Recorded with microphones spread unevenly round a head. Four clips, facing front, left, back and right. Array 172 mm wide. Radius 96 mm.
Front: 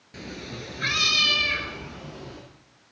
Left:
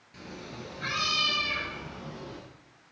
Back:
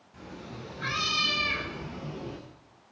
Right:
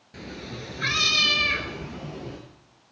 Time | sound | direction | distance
0.1 | a cat meowing | 35° right | 1.9 m